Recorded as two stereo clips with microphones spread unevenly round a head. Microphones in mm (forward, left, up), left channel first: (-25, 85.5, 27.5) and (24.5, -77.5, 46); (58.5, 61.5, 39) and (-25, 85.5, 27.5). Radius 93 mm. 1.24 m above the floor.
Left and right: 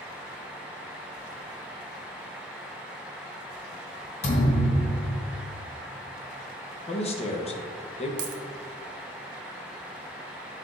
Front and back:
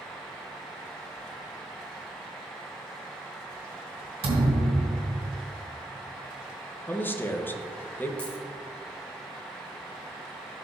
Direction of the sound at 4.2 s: 160° left.